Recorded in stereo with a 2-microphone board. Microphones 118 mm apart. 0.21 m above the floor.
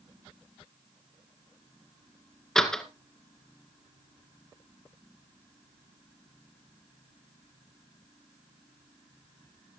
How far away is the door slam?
About 1.9 m.